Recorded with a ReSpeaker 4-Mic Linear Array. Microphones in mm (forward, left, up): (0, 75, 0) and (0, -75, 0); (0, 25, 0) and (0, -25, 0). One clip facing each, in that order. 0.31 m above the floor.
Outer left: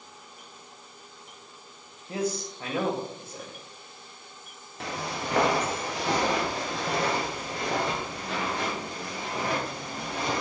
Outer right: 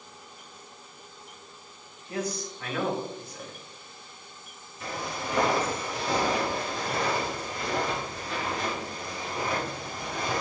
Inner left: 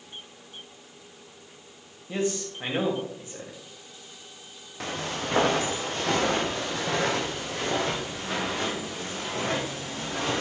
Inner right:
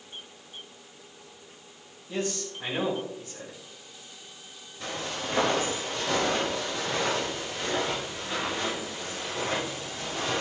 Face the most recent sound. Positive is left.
turn(degrees=75)  # may be behind; listen again after turning